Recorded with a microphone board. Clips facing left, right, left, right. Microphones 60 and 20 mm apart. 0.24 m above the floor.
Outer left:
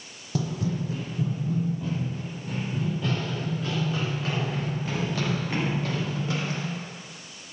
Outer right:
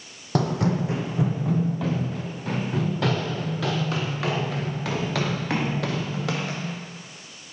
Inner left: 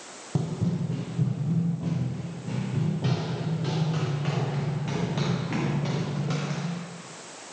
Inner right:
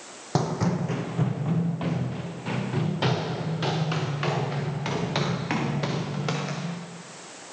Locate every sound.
0.3 s running footsteps: 65° right (ahead or behind), 0.6 m; by 6.8 s 85° right, 4 m